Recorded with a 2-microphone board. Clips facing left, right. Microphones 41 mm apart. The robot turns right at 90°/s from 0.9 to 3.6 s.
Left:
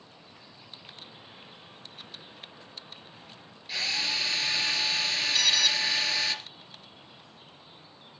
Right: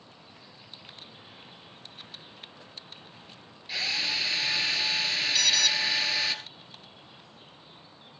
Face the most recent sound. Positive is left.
turn(degrees=10)  # may be behind; listen again after turning